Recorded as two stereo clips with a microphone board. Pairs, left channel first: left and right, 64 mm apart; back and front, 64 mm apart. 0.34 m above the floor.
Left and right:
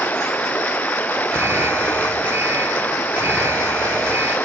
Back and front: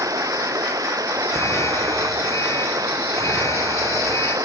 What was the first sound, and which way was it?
Running water, 25° left.